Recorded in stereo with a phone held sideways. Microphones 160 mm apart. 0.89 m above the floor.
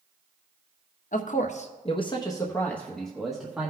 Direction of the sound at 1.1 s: 60° left (ahead or behind).